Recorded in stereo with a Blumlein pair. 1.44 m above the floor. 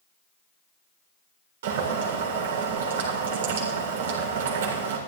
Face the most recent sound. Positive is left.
turn(degrees=-55)